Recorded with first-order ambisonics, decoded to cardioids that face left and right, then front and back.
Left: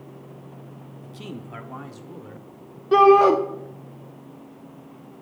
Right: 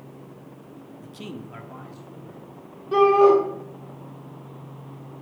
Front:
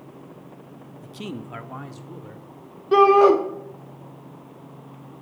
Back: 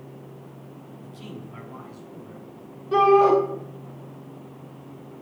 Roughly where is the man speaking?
Ahead right.